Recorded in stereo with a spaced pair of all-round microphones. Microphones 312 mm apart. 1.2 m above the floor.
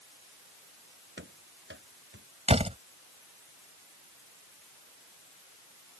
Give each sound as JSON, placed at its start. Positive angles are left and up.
{"t": 1.2, "sound": "running footsteps", "side_deg": -35}
{"t": 2.5, "sound": "a door slam", "side_deg": -20}